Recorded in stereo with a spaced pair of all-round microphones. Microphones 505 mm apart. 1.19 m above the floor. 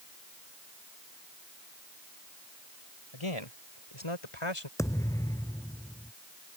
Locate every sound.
3.1 s a man speaking: 70° left (ahead or behind); by 4.7 s 85° left
4.8 s a thud: 5° left (ahead or behind)